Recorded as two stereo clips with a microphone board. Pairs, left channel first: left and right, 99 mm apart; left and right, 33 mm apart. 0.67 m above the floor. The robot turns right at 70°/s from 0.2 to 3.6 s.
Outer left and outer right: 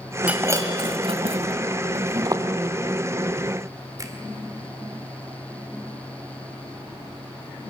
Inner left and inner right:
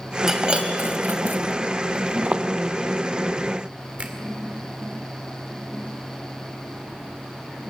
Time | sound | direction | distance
0.3 | breaking glass | 10° right (ahead or behind) | 2.5 m
2.2 | footsteps | 45° right (ahead or behind) | 1.1 m
4.0 | a finger snap | 35° right (ahead or behind) | 1.9 m